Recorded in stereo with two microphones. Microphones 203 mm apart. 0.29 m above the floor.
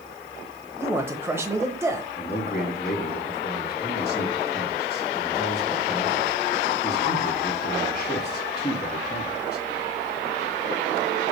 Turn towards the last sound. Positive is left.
turn(degrees=50)  # may be behind; listen again after turning